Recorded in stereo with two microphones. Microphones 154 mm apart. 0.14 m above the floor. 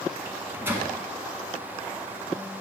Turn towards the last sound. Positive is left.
turn(degrees=-15)  # may be behind; listen again after turning